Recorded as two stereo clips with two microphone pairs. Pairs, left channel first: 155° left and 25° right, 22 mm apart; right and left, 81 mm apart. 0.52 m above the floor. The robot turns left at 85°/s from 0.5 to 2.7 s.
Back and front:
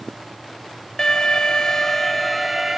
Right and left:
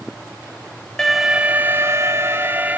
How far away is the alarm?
About 0.7 m.